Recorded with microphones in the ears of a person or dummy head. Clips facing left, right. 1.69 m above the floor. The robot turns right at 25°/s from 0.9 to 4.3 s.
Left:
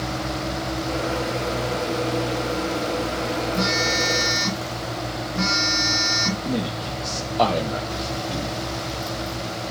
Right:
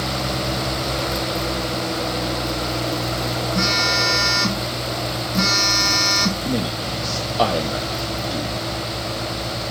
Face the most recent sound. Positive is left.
turn(degrees=-10)  # may be behind; listen again after turning